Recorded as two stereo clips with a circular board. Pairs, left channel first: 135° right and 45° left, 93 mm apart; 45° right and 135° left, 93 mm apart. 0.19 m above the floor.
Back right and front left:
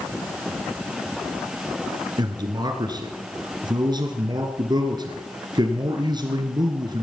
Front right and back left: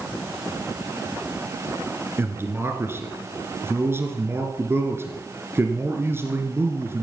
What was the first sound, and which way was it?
A man speaking, 75° left.